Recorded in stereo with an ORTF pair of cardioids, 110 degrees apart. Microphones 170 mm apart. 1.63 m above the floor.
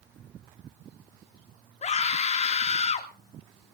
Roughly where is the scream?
Ahead left.